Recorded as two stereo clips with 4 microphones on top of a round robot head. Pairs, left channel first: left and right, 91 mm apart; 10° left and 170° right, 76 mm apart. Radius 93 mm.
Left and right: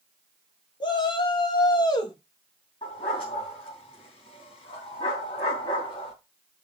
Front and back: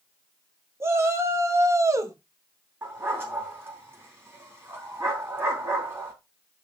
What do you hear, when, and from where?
0.8 s a shout: 135° left, 2.5 m; by 2.2 s 140° left, 1.6 m
2.8 s a dog barking: 130° left, 3.5 m